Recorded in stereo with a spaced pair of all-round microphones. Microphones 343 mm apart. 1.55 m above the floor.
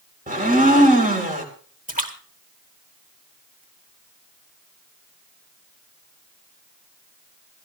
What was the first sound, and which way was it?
A blender, 25° right (ahead or behind).